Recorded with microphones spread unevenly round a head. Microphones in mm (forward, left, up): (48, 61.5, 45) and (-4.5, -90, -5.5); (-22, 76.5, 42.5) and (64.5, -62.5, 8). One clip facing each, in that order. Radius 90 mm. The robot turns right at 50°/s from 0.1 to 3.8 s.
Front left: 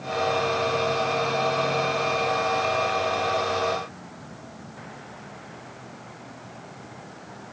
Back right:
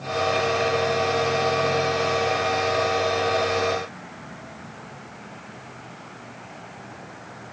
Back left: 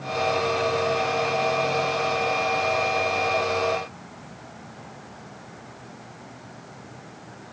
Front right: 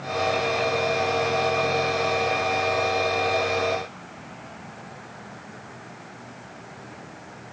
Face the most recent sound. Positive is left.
No sound to turn to.